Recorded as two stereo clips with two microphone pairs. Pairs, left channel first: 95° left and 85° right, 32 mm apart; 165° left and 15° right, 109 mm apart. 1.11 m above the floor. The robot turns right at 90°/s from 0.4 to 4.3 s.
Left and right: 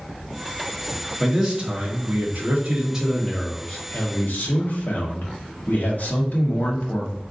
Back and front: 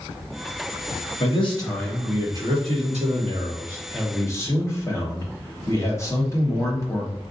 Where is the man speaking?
175° right, 1.4 m; by 7.2 s 105° left, 1.4 m.